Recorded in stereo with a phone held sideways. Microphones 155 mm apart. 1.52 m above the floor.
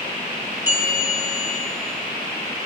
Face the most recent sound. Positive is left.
turn(degrees=-15)  # may be behind; listen again after turning